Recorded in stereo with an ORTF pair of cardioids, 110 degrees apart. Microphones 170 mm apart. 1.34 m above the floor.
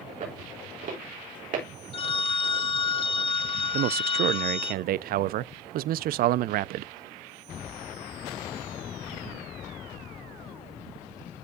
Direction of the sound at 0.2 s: 50° right.